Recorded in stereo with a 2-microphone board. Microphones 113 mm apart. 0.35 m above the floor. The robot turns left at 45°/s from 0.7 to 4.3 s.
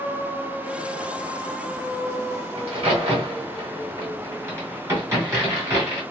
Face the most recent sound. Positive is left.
turn(degrees=-25)  # may be behind; listen again after turning